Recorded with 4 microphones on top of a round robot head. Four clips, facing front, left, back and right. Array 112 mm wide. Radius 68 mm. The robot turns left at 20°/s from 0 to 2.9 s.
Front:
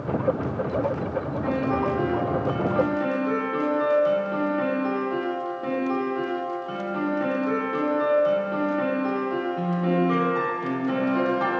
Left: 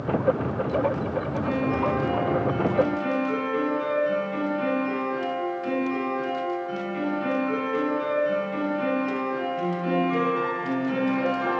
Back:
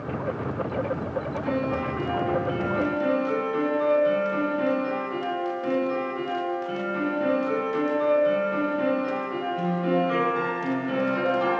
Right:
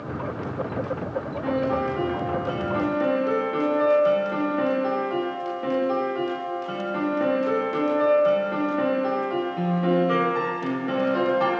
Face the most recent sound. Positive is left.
turn(degrees=-75)